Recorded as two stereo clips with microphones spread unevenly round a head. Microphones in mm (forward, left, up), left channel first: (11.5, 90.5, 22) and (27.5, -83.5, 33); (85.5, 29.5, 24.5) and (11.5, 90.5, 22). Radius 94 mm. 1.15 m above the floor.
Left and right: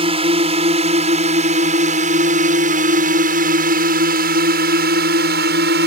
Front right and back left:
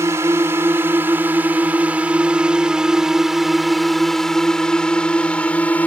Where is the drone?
145° right; by 5.9 s 120° right.